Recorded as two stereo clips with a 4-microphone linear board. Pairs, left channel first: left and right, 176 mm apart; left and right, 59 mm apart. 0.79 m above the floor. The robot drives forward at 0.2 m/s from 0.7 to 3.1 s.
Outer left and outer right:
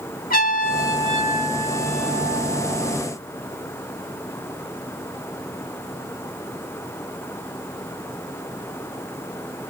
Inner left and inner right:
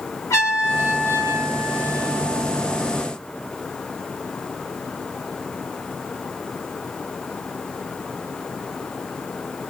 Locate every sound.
0.3 s a trumpet: 55° left (ahead or behind), 1.1 m; by 3.0 s 40° left (ahead or behind), 1.4 m